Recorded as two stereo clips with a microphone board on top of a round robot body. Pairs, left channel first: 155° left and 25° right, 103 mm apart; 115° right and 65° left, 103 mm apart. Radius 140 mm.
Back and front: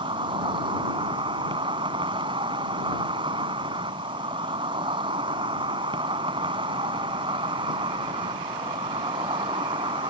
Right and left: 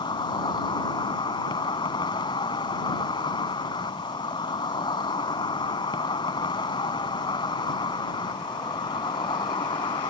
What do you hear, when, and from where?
0.0 s an insect: 65° right